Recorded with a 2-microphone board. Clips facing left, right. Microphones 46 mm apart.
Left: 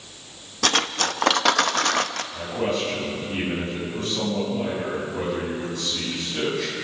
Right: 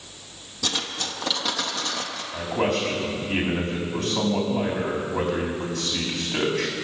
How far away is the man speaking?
About 6 m.